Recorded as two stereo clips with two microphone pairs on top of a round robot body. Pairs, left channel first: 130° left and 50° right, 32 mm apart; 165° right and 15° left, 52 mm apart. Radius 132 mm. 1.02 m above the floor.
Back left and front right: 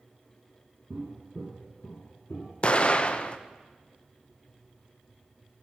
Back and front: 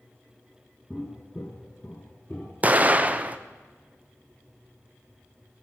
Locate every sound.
0.9 s footsteps: 85° right, 1.0 m; by 2.5 s 130° left, 1.5 m
2.6 s an explosion: 65° left, 0.7 m